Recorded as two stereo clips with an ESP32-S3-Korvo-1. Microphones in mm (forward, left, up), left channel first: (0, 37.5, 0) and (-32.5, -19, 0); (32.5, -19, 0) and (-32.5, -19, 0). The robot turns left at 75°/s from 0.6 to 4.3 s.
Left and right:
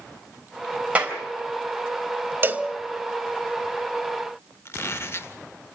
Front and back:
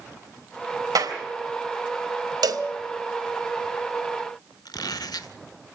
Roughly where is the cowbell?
Behind.